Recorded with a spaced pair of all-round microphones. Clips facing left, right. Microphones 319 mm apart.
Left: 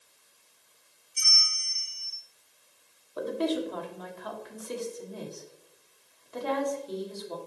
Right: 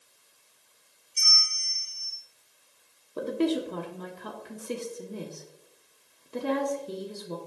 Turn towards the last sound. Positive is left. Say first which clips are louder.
# right 2 dB
turn(degrees=-35)  # may be behind; listen again after turning